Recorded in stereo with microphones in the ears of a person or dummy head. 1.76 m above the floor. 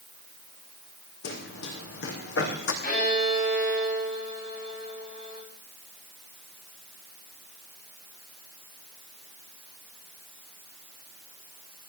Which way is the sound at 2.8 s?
45° left (ahead or behind).